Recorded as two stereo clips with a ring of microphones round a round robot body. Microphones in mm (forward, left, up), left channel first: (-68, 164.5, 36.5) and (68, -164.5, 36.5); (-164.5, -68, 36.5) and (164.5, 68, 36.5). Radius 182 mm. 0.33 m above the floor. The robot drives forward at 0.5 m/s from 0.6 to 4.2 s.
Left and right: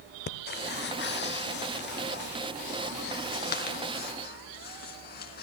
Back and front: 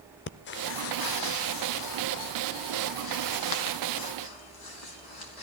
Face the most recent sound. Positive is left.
turn(degrees=175)